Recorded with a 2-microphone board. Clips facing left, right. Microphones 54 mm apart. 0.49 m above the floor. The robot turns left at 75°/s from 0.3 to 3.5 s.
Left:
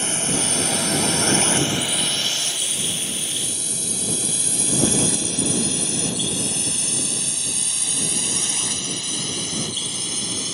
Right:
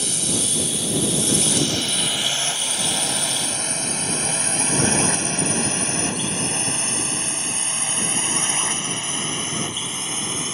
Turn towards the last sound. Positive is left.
turn(degrees=-30)  # may be behind; listen again after turning